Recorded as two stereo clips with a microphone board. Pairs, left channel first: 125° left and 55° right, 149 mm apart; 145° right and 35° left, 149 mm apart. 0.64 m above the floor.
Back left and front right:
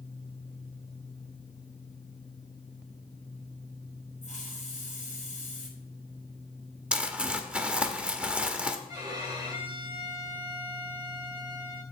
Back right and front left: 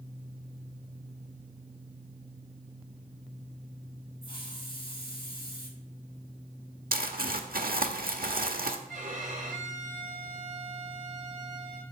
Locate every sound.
4.2 s a hiss: 160° left, 2.5 m
6.9 s crumpling: 25° left, 1.2 m
8.9 s a violin: 5° left, 2.5 m